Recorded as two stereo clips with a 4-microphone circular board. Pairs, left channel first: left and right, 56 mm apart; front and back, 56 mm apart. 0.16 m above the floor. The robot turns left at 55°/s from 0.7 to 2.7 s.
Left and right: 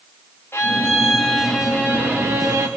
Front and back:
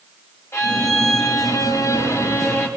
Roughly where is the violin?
Ahead left.